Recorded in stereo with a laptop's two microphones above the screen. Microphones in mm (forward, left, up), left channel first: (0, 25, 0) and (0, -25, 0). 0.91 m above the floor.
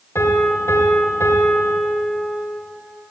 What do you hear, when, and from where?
0.1 s a piano: 60° left (ahead or behind), 3 m